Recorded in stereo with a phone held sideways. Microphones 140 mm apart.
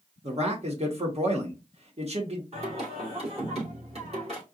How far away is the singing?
About 2.5 m.